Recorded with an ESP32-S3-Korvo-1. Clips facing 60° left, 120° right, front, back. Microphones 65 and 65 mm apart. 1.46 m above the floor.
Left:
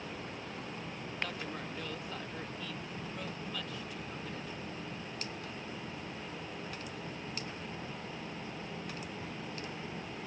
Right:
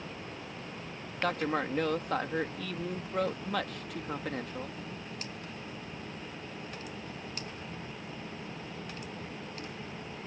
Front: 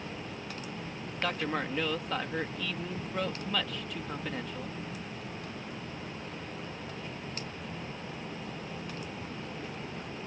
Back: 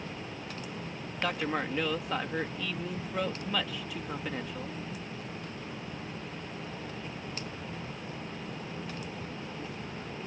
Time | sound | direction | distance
1.2 | a man speaking | 95° right | ?